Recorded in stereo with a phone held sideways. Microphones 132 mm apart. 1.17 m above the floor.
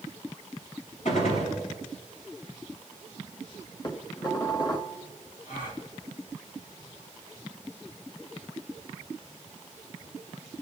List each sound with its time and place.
1.1 s a gunshot: 65° left (ahead or behind), 5 m
3.8 s dishes clattering: 30° left (ahead or behind), 1.4 m
5.5 s a gasp: 75° left (ahead or behind), 2.5 m